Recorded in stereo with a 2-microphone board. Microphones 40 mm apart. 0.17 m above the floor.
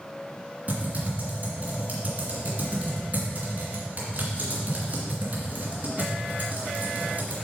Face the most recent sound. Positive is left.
turn(degrees=-40)  # may be behind; listen again after turning